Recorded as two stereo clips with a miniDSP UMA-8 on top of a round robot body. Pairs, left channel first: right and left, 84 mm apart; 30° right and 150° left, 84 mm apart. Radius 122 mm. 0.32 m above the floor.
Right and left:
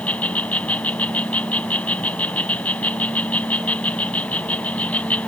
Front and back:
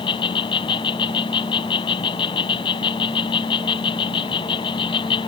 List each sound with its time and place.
0.0 s an insect: 15° right